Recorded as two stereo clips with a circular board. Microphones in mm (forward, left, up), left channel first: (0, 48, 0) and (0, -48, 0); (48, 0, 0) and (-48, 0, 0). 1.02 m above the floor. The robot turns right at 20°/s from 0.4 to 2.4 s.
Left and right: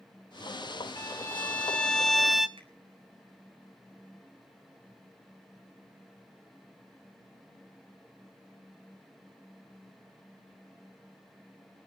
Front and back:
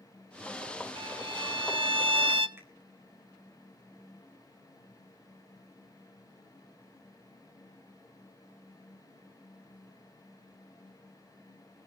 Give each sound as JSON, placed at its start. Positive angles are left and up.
{"t": 1.0, "sound": "a violin", "azimuth_deg": 155, "distance_m": 0.7}
{"t": 2.6, "sound": "a finger snap", "azimuth_deg": -115, "distance_m": 4.5}